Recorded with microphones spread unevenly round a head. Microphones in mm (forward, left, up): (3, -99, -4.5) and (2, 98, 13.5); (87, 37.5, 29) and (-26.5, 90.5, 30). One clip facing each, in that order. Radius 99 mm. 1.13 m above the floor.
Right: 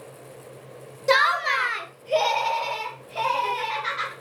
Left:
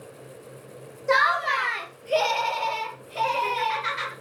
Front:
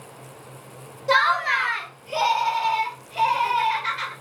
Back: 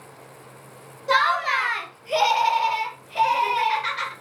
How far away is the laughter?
About 0.5 m.